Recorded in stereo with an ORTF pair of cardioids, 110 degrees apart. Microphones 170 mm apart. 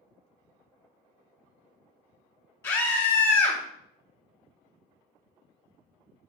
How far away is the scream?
About 0.5 m.